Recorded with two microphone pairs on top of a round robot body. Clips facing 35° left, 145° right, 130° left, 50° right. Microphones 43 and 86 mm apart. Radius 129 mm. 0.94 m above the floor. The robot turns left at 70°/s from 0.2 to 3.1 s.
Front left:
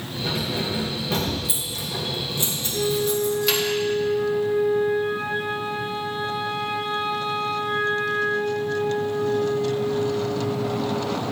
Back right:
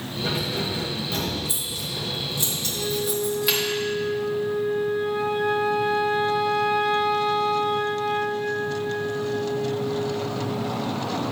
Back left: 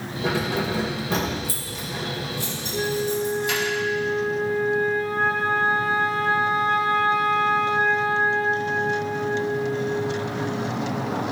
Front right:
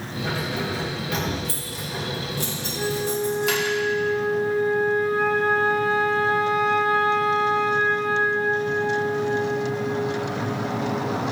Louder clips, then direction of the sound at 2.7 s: Front left 5 dB, back left 1 dB; 95° left.